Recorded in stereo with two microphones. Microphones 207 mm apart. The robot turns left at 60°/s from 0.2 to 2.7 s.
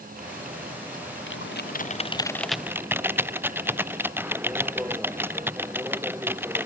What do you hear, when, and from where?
1.3 s typing on a keyboard: 75° left; by 6.7 s 10° right